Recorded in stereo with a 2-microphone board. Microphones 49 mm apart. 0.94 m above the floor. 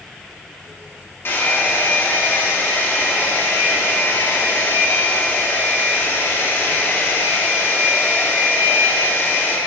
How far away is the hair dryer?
About 1.7 m.